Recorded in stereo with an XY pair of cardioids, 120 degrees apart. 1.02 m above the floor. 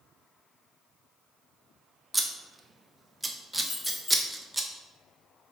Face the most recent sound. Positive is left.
turn(degrees=20)